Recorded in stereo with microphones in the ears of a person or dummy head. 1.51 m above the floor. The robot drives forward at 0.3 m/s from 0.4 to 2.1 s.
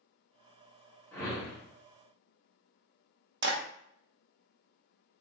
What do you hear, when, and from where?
1.1 s a whoosh: 5° left (ahead or behind), 0.9 m
3.4 s a clap: 60° right (ahead or behind), 0.5 m